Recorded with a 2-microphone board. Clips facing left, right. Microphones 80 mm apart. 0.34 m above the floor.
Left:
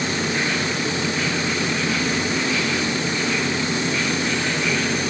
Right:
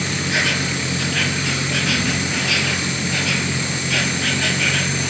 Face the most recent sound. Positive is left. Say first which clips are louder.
# right 1 dB
turn(degrees=-85)